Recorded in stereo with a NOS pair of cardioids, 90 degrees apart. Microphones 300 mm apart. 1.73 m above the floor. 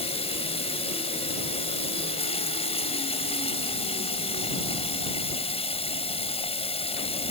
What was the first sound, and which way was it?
Running water, 20° left.